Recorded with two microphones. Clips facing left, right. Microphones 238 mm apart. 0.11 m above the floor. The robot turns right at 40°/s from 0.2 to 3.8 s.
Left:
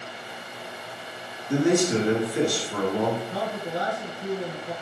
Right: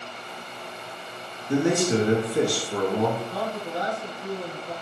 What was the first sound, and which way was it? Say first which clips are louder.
A man speaking: left 1 dB; 145° right.